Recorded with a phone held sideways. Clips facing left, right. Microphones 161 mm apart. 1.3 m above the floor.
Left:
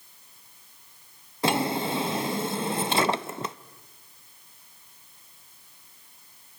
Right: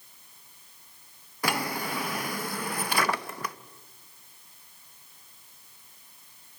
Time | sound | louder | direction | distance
1.4 | a drawer | left 5 dB | 25° left (ahead or behind) | 0.6 m